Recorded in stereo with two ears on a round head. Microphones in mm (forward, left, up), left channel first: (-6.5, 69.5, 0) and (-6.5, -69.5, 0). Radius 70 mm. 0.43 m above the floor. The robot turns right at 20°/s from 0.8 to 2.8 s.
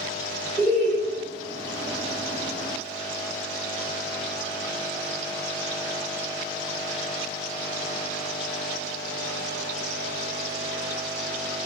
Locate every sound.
0.6 s laughter: 10° right (ahead or behind), 1.0 m; by 1.0 s 15° right (ahead or behind), 1.0 m